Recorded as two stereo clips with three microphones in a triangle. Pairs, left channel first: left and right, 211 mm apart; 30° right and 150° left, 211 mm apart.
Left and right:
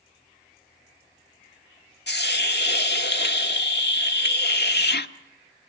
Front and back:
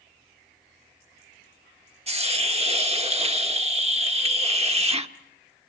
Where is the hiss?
100° left, 1.1 m.